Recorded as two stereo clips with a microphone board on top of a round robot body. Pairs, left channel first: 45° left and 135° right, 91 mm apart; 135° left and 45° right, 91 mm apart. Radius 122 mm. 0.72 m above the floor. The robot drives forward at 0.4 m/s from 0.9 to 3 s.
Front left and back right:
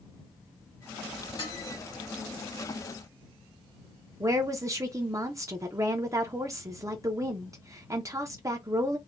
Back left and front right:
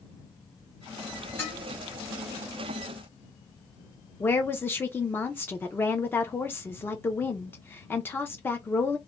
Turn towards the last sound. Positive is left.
turn(degrees=-170)